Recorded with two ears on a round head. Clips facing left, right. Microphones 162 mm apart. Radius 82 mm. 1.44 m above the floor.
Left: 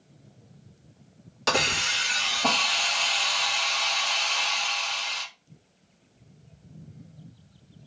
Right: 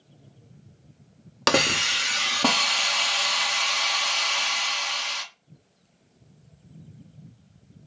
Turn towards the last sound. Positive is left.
turn(degrees=-65)  # may be behind; listen again after turning